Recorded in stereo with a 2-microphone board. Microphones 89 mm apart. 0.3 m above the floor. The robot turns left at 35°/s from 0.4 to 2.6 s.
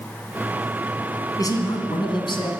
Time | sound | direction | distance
1.4 | a man speaking | 130° left | 2 m